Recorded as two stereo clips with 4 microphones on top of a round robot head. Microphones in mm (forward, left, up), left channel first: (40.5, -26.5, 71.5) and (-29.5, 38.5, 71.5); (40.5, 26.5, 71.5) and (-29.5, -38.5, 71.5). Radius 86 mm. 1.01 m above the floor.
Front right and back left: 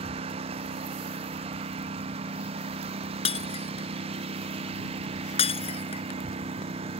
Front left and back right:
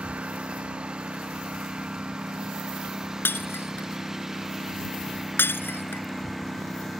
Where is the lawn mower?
145° left; by 7.0 s 130° left.